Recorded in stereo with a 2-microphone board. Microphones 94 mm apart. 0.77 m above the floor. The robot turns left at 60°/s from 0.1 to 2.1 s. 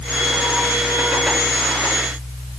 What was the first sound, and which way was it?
Only background noise.